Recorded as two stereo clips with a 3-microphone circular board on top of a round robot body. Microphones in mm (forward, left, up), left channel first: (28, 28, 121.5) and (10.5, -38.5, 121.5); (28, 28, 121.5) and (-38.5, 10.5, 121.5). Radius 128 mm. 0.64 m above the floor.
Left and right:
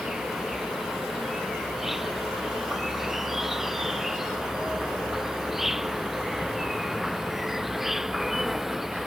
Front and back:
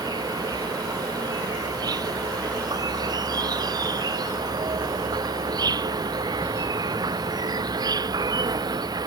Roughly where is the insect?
Behind.